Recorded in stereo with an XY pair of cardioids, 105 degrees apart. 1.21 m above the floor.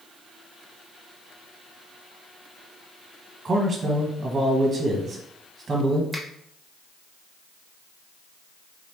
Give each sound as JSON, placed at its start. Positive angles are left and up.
{"t": 3.5, "sound": "a man speaking", "azimuth_deg": -30, "distance_m": 1.1}
{"t": 6.1, "sound": "a finger snap", "azimuth_deg": -5, "distance_m": 1.5}